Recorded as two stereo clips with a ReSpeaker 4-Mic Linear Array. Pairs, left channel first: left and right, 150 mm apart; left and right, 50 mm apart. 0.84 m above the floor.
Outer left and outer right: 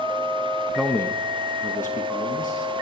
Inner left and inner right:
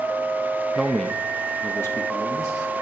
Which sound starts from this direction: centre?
A man speaking, at 0.8 s.